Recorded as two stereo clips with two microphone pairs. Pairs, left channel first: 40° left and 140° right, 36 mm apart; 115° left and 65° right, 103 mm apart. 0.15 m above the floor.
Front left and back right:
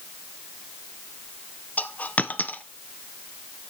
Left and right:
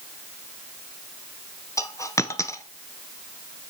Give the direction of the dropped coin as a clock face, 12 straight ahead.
10 o'clock.